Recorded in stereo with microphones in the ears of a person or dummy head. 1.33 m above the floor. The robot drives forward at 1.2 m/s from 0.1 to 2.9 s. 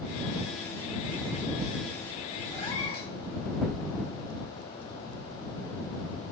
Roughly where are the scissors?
I don't hear scissors.